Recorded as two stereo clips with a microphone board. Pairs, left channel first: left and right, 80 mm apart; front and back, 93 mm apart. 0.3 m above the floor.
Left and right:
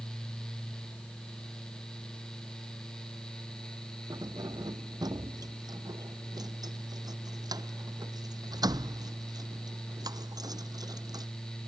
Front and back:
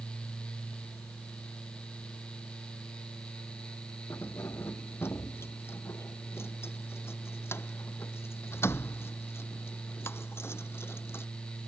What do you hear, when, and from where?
4.1 s keys jangling: 60° right